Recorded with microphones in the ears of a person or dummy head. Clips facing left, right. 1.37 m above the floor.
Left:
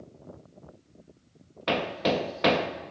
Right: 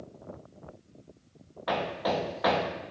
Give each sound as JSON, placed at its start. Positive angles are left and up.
{"t": 1.7, "sound": "hammering", "side_deg": 30, "distance_m": 1.3}